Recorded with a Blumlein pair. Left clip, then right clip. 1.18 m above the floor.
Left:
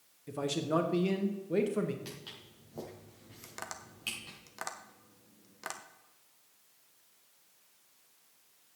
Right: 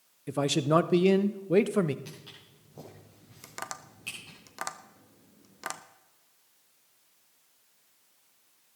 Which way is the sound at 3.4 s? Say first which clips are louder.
Right 4 dB; 15° right.